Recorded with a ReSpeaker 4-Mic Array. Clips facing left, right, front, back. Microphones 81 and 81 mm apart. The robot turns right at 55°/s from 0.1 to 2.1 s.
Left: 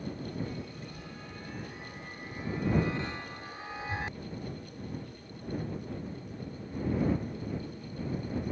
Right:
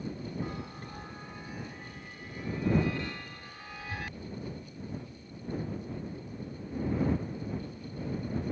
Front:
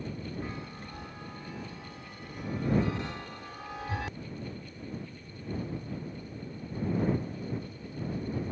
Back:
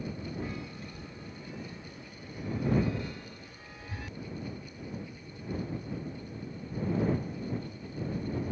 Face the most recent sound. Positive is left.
turn(degrees=25)